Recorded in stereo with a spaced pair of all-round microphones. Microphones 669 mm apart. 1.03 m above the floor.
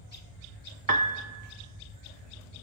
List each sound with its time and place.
0.9 s a piano: 35° right (ahead or behind), 0.7 m